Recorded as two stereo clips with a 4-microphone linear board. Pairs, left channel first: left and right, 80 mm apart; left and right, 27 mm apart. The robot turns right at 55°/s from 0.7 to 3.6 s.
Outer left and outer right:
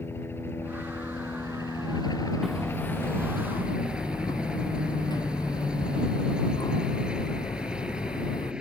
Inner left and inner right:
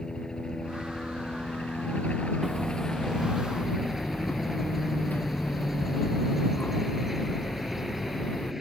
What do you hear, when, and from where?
0.0 s a helicopter: 35° left; by 8.6 s 165° right
2.4 s hammering: 5° right; by 8.5 s 60° left